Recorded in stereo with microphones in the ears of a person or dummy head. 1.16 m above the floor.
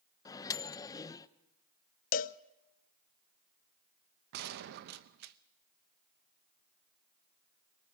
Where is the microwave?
20° left (ahead or behind), 0.7 m.